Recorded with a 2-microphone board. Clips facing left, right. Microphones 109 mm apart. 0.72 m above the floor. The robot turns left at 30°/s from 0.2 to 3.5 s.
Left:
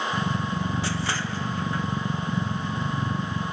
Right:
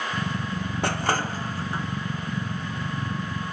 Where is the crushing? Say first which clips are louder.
Right 4 dB; 55° right (ahead or behind); by 1.9 s 25° right (ahead or behind).